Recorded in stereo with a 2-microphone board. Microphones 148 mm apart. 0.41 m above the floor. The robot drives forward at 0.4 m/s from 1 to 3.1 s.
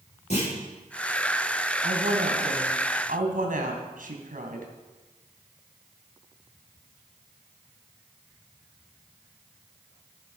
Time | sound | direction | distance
0.3 | a clunk | 50° left (ahead or behind) | 8 m
1.8 | a woman speaking | 60° right (ahead or behind) | 3 m